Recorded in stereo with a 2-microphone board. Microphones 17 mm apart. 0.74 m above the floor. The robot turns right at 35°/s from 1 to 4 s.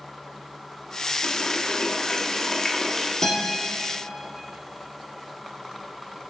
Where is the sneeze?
I don't hear a sneeze.